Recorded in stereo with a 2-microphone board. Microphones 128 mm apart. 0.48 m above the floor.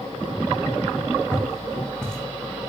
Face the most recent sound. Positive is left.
turn(degrees=5)  # may be behind; listen again after turning